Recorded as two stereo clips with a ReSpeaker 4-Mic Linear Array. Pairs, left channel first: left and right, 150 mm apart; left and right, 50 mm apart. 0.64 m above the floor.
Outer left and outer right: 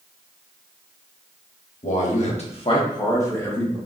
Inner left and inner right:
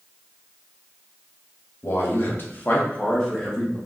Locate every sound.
1.8 s a man speaking: 50° left (ahead or behind), 1.1 m; by 3.8 s 10° left (ahead or behind), 1.5 m